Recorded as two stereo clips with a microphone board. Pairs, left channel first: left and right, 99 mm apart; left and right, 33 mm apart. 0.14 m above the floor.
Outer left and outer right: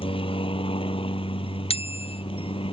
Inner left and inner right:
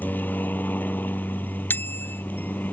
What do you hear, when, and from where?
0.0 s a helicopter: 65° left (ahead or behind)
1.7 s a bicycle bell: 75° left (ahead or behind)